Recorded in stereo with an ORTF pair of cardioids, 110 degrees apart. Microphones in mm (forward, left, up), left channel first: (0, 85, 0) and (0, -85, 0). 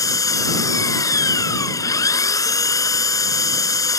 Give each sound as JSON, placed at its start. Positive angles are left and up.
{"t": 0.0, "sound": "an engine running", "azimuth_deg": 20}